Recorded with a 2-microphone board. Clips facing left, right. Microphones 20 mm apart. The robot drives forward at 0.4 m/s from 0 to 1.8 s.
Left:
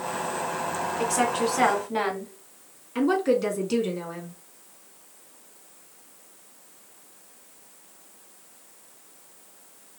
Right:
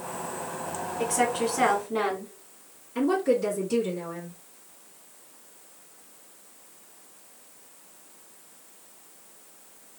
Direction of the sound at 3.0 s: 45° left (ahead or behind).